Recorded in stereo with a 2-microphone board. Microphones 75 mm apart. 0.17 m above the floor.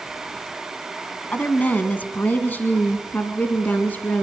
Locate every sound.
1.3 s a woman speaking: 25° left (ahead or behind), 1.5 m